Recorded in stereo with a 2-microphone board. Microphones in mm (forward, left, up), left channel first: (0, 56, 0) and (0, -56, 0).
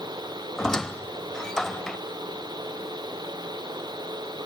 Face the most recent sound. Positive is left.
turn(degrees=5)  # may be behind; listen again after turning